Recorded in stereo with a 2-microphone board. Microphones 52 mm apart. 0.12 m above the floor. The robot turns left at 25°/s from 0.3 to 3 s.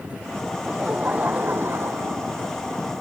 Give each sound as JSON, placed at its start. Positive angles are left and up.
{"t": 0.7, "sound": "laughter", "azimuth_deg": -20}